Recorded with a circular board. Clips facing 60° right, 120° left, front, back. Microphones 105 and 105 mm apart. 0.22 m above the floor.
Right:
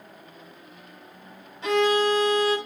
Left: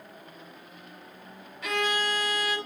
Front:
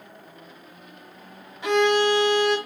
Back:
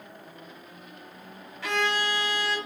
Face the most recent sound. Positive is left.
turn(degrees=-50)